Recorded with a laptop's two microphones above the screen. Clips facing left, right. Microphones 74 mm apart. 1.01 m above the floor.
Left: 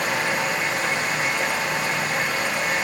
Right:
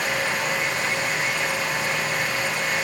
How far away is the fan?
About 1.7 m.